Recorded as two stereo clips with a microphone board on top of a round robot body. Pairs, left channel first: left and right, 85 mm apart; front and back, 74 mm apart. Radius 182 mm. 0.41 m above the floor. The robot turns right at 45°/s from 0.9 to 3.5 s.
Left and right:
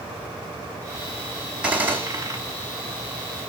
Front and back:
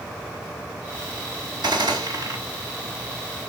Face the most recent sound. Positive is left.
turn(degrees=-80)